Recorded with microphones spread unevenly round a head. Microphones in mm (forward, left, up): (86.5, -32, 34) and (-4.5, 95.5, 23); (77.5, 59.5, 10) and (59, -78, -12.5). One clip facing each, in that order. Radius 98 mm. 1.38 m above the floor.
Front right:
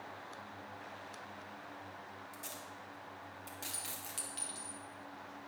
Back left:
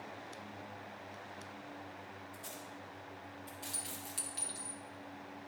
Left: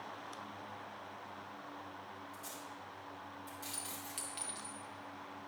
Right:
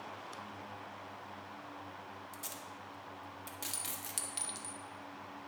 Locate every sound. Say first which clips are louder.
2.3 s tape being pulled: back left 1 dB, right 1 dB; 110° right, 1.6 m
3.7 s a clink: back left 1 dB, even; 145° right, 0.8 m